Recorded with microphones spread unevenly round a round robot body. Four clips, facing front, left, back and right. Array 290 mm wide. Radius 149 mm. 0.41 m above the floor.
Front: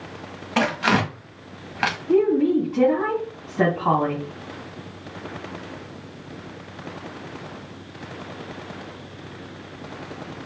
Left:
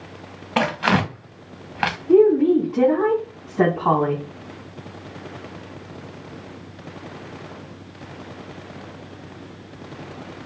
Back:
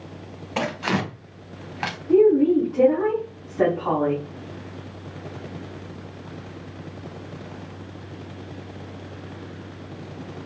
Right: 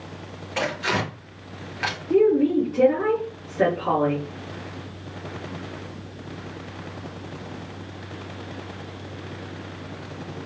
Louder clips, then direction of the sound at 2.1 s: Left 4 dB, back 3 dB; 65° left.